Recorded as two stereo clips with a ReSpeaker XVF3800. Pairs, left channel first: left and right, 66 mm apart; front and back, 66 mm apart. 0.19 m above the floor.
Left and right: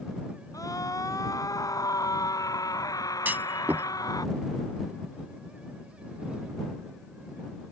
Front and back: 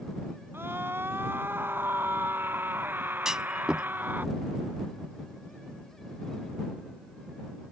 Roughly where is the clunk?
Right.